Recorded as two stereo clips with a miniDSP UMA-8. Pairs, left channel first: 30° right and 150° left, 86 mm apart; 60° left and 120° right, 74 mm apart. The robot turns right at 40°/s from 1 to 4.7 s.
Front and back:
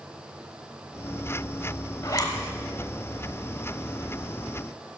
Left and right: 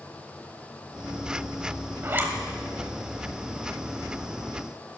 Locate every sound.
2.0 s a zipper: 70° right, 1.0 m; by 2.3 s 55° right, 1.0 m